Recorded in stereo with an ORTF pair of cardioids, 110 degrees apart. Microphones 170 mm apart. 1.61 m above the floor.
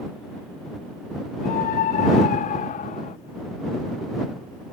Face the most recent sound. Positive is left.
turn(degrees=50)